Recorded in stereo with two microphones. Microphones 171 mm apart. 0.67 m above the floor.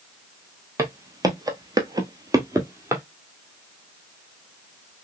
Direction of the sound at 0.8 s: 20° right (ahead or behind).